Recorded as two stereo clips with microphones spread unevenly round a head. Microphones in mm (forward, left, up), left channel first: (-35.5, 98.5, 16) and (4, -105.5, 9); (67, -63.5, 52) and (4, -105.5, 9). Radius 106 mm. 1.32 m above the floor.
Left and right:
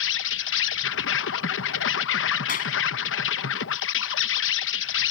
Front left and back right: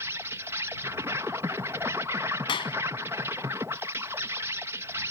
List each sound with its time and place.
0.0 s an insect: 130° left
2.5 s a clap: 50° left